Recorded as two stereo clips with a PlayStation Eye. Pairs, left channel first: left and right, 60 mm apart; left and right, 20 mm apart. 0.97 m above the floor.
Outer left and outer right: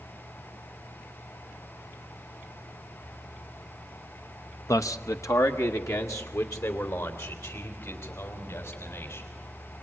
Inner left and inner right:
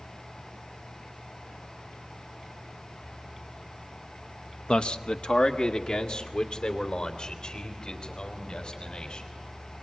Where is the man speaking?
65° left (ahead or behind), 0.8 m; by 9.3 s 60° left (ahead or behind), 5.5 m.